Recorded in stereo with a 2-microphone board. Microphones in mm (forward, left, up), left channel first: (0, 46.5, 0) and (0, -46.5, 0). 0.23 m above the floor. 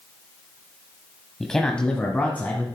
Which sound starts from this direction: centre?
A man speaking, at 1.4 s.